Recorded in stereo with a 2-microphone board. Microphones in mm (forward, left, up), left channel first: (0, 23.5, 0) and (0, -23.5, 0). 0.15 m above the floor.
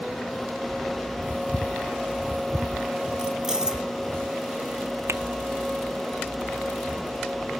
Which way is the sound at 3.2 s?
15° right (ahead or behind).